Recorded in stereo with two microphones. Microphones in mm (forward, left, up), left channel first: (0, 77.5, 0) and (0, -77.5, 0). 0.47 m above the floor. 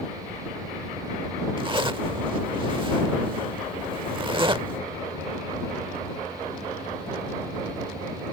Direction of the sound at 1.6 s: 35° right (ahead or behind).